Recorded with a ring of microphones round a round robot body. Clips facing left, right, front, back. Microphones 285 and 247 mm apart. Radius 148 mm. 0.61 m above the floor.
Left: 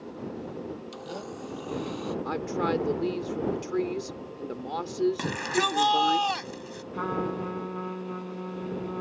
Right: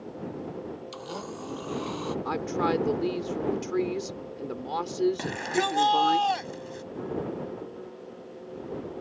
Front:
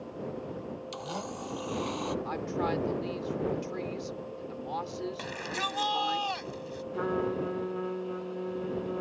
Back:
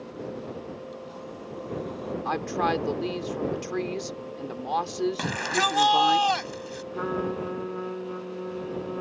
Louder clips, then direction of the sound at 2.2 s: Right 1 dB, back 3 dB; 175° right.